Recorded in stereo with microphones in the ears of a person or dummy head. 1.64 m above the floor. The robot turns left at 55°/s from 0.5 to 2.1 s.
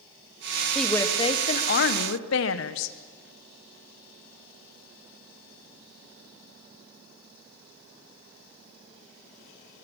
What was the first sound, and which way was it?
A woman speaking, straight behind.